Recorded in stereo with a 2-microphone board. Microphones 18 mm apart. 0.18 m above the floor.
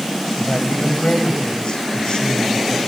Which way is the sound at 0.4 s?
60° left (ahead or behind).